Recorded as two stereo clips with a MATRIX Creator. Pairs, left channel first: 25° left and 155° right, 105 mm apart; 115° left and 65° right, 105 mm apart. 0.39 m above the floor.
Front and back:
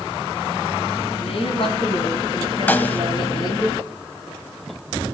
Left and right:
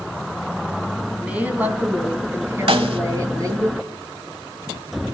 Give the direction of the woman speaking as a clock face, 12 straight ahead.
12 o'clock.